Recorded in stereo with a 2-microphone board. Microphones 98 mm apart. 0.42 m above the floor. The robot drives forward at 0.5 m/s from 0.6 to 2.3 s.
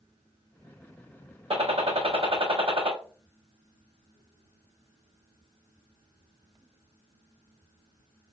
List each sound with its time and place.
1.5 s a gunshot: 75° right (ahead or behind), 0.7 m; by 2.9 s 70° right (ahead or behind), 0.7 m